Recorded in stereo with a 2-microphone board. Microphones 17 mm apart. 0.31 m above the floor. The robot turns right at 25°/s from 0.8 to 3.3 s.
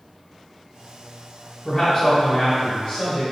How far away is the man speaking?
About 1.9 m.